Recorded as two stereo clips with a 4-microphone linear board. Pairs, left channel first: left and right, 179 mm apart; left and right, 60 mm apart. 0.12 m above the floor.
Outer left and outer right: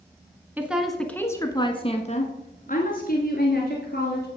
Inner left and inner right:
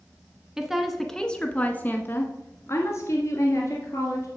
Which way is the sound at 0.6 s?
10° right (ahead or behind).